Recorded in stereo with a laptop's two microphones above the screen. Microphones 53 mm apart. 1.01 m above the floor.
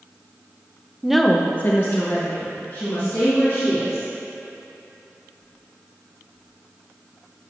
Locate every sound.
1.0 s a woman speaking: 10° right (ahead or behind), 0.6 m; by 4.0 s 60° left (ahead or behind), 3 m